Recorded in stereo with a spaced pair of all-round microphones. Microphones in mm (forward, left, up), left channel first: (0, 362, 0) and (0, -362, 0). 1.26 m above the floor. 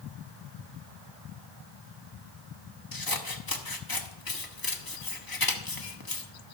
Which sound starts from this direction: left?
Scissors, at 2.9 s.